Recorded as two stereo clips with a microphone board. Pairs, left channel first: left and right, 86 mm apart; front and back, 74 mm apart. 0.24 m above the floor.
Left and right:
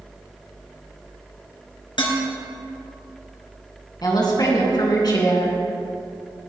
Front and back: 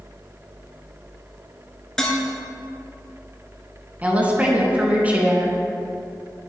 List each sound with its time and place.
2.0 s dishes clattering: 80° left, 2.5 m
4.0 s a woman speaking: 115° left, 3 m